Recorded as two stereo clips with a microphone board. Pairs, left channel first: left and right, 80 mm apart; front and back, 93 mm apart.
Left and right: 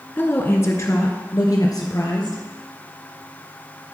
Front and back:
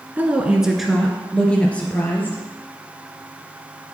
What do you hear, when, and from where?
0.2 s a woman speaking: 125° left, 1.2 m; by 2.4 s 65° left, 2 m